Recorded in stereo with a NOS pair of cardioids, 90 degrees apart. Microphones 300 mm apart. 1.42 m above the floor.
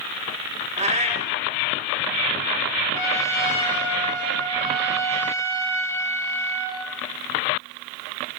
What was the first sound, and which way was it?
A cat meowing, 20° right.